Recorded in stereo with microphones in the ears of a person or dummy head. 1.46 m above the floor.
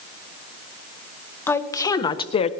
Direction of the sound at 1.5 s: 10° left (ahead or behind).